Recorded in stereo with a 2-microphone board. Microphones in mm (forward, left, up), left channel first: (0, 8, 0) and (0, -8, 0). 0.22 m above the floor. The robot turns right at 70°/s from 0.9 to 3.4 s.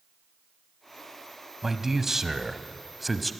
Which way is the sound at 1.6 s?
20° right (ahead or behind).